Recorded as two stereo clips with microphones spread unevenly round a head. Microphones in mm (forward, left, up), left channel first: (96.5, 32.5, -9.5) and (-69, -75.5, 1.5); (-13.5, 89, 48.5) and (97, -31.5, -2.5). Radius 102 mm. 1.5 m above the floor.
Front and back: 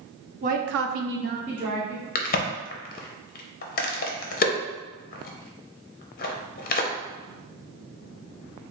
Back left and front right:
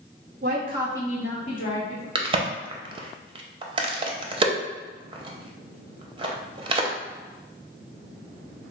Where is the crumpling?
No crumpling in this recording.